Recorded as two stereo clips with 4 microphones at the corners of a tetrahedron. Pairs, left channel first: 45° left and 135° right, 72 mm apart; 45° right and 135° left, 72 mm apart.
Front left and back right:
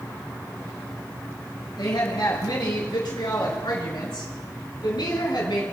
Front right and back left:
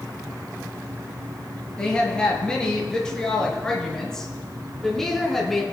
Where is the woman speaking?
35° left, 6 m; by 5.6 s 45° left, 3.5 m.